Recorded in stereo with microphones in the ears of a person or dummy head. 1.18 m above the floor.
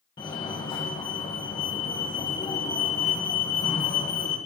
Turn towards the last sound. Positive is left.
turn(degrees=20)  # may be behind; listen again after turning